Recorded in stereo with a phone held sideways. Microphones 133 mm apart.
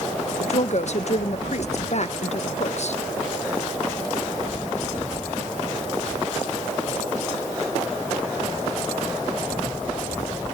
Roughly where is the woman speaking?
Left.